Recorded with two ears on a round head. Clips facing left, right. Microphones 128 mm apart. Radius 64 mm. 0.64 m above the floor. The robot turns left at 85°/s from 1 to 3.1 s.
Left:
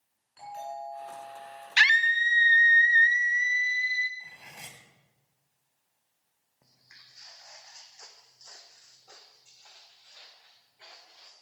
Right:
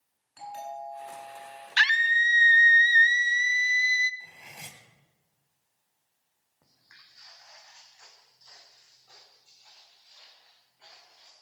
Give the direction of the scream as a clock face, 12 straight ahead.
11 o'clock.